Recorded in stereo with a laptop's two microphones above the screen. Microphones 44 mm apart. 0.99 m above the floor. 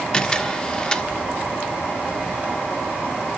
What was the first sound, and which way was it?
A camera shutter, 20° left (ahead or behind).